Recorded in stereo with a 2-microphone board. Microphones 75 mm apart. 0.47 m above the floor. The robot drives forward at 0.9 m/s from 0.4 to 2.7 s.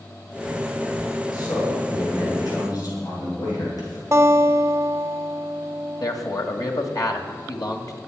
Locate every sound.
1.3 s a man speaking: 65° left (ahead or behind), 7.5 m; by 4.0 s 55° left (ahead or behind), 8 m
4.1 s a guitar: 40° right (ahead or behind), 1.4 m
6.0 s a man speaking: 55° left (ahead or behind), 1.9 m